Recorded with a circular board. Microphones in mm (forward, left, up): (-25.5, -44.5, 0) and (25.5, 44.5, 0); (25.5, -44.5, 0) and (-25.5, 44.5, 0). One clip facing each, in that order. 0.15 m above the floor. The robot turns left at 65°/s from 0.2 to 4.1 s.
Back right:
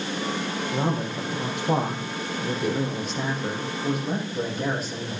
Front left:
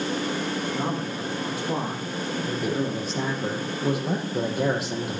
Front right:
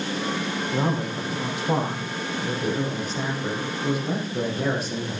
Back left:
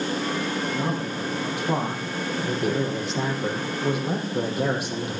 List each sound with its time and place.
0.7 s a man speaking: 100° right, 7 m; by 5.2 s 40° left, 7 m